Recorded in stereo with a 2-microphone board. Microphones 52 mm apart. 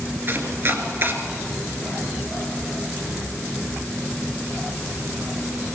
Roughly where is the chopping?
Right.